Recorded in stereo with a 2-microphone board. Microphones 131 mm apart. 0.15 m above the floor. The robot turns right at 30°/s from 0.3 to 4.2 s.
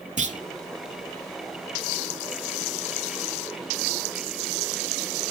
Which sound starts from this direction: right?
A clunk, at 0.2 s.